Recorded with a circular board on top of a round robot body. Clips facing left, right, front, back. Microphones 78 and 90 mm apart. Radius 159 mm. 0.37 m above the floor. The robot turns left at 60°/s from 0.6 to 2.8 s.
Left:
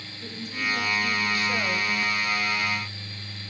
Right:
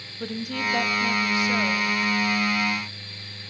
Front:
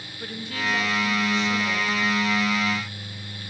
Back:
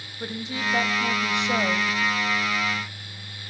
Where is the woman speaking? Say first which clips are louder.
Right 4 dB, back 1 dB; 110° right, 2.5 m; by 1.9 s 170° left, 2.5 m.